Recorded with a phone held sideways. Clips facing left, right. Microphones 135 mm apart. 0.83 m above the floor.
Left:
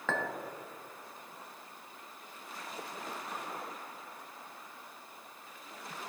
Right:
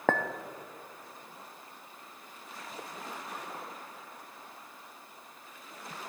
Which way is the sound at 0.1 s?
55° right (ahead or behind).